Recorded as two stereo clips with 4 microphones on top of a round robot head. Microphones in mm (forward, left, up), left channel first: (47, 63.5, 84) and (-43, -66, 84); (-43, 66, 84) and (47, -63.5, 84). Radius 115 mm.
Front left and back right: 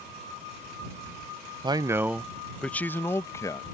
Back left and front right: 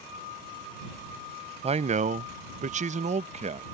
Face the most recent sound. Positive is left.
turn(degrees=-15)